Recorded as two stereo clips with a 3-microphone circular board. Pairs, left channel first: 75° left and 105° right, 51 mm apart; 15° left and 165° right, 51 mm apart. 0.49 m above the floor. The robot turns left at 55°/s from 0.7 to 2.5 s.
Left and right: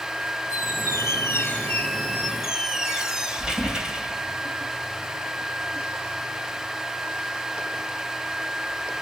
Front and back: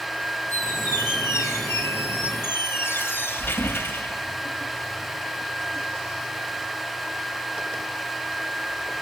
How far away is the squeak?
About 2 m.